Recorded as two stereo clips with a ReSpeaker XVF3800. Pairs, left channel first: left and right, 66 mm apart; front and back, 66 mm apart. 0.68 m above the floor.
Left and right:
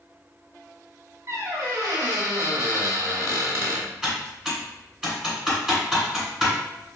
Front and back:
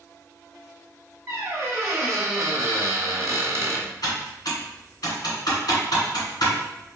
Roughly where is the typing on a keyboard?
Ahead.